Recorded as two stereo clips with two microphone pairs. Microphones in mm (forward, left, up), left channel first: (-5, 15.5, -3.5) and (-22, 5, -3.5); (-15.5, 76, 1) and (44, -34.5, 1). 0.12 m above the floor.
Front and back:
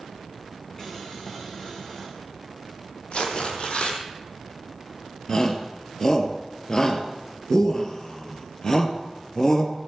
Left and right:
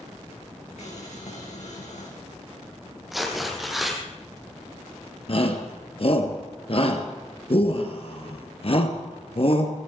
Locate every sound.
0.8 s boiling: 95° left, 4.5 m
3.1 s tearing paper: 30° left, 2.5 m
5.3 s a shout: 90° left, 2 m